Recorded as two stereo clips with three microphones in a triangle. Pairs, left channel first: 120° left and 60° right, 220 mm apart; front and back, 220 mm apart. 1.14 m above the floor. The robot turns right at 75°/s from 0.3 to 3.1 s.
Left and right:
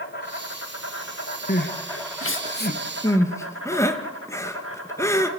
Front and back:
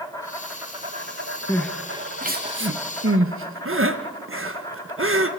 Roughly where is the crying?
Left.